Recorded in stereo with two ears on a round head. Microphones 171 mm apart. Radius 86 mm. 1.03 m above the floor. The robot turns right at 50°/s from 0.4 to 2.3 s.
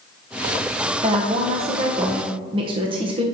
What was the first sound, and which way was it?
A woman speaking, 120° right.